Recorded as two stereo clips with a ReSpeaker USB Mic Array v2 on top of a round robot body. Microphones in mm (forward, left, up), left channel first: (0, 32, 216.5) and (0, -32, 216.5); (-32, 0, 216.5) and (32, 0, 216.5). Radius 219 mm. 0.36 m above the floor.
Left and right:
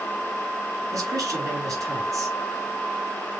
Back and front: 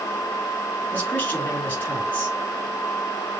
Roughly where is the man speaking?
Behind right.